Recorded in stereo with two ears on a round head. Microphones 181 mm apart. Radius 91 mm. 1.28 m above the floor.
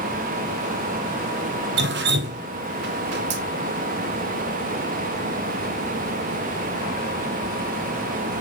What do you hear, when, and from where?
1.8 s dripping: 60° right (ahead or behind), 0.7 m